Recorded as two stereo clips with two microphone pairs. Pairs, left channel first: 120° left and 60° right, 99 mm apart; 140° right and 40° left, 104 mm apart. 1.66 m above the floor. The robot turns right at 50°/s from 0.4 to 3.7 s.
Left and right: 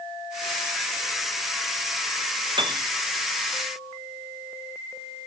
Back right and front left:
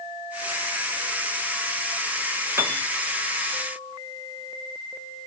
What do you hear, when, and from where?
2.6 s a piano: 30° right, 0.8 m; by 2.9 s 15° right, 0.8 m